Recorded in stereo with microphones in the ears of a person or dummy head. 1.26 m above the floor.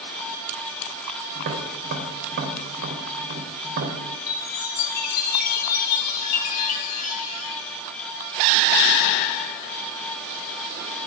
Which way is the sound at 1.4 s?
65° right (ahead or behind).